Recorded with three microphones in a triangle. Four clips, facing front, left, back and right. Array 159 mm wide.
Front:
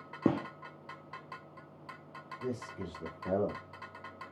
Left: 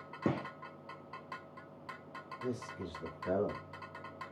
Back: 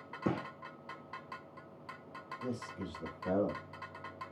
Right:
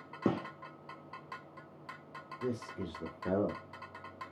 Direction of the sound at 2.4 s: 70° right.